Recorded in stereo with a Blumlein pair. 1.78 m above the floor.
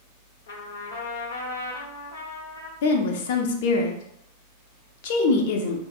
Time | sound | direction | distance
0.5 | a trumpet | 60° left | 0.9 m
2.8 | a woman speaking | 50° left | 0.7 m